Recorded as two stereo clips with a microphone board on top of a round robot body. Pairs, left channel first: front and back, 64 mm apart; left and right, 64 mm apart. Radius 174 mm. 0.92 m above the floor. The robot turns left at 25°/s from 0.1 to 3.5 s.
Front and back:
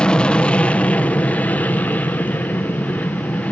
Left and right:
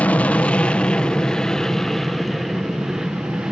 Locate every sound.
0.0 s an aircraft: 55° left; by 3.5 s 30° right